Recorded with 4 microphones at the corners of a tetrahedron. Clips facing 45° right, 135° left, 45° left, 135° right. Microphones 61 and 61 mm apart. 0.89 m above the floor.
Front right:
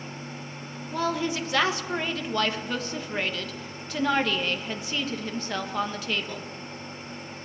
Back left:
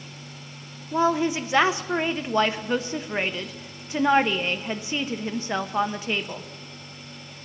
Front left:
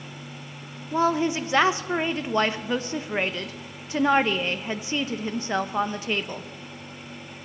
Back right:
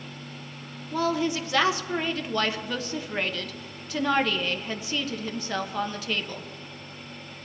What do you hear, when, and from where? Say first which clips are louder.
0.9 s a woman speaking: back left 5 dB, front left 3 dB; 90° left, 0.7 m